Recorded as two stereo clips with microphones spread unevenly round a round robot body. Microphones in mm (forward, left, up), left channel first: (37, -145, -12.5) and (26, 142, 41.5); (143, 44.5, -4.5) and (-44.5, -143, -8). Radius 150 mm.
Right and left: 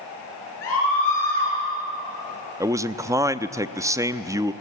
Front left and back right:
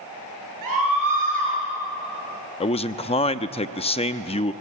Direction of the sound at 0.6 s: 135° right.